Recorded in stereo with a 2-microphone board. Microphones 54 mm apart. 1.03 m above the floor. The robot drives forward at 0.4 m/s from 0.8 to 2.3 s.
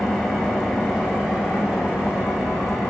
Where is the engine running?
Centre (ahead or behind), 2 m.